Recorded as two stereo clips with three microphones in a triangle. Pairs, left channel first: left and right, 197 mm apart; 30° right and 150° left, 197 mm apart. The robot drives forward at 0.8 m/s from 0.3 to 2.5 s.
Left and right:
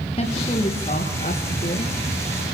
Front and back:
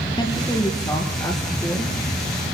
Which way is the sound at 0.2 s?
30° left.